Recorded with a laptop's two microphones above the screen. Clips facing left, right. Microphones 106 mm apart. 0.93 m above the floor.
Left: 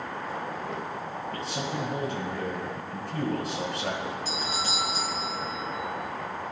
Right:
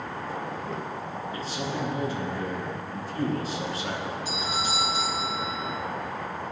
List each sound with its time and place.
1.3 s a man speaking: 65° left (ahead or behind), 7.5 m
4.2 s a doorbell: 15° right (ahead or behind), 3 m